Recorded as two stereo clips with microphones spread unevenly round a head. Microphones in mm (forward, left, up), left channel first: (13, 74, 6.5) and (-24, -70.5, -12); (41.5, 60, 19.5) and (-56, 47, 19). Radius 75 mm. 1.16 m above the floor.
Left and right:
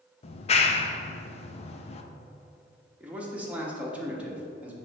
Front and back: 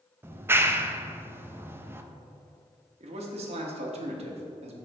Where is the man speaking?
175° left, 1.3 m.